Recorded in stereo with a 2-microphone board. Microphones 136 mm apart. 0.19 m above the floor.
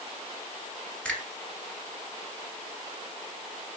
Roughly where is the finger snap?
Centre.